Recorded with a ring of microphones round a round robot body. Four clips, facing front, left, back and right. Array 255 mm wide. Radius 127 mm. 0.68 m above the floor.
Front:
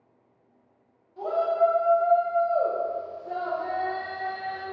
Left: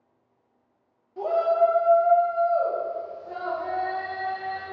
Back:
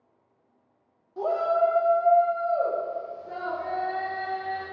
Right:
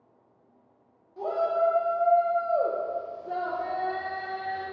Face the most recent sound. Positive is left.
turn(degrees=-50)